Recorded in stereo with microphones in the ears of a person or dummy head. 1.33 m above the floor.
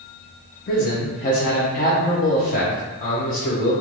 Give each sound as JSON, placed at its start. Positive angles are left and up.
{"t": 0.7, "sound": "a man speaking", "side_deg": 40, "distance_m": 0.5}